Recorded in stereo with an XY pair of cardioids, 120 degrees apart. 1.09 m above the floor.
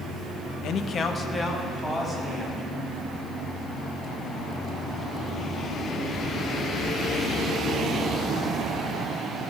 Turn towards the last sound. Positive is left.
turn(degrees=10)